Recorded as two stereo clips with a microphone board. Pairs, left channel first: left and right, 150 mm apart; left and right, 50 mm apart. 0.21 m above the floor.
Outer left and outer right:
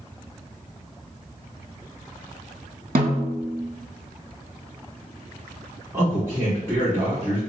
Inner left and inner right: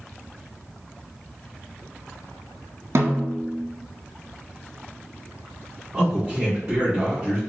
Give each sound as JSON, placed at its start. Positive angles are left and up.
{"t": 3.0, "sound": "a snare drum", "side_deg": -70, "distance_m": 0.5}
{"t": 5.9, "sound": "a man speaking", "side_deg": -15, "distance_m": 1.4}